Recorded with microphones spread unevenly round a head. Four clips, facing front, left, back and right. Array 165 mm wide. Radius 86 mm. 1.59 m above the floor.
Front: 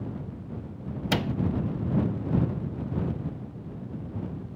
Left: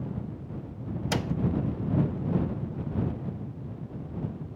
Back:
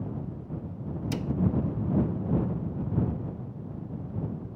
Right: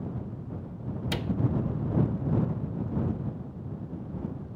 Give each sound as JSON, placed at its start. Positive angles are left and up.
{"t": 1.1, "sound": "a cupboard door", "azimuth_deg": 20}